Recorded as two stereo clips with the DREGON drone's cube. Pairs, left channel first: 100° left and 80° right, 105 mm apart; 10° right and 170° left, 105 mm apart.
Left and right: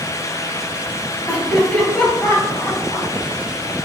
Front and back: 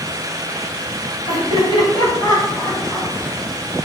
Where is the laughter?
15° left, 2 m; by 3.1 s 50° left, 1.8 m.